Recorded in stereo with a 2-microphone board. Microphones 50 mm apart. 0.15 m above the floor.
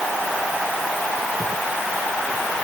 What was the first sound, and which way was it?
Only background noise.